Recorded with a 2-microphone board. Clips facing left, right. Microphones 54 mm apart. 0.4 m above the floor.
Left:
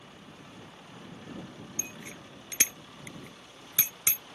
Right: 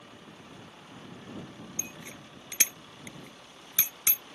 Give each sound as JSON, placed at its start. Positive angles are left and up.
{"t": 1.8, "sound": "a bicycle bell", "side_deg": 15}